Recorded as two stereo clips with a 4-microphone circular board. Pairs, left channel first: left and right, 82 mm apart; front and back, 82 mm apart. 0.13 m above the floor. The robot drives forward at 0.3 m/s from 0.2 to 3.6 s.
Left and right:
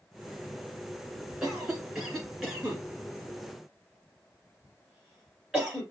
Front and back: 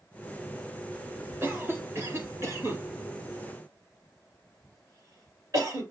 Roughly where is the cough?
Behind.